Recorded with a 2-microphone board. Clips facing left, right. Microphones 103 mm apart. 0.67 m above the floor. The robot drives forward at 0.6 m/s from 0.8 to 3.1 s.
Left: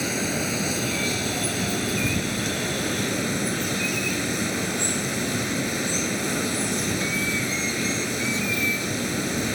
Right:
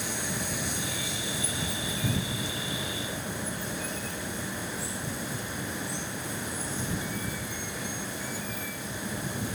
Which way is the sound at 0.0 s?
70° left (ahead or behind).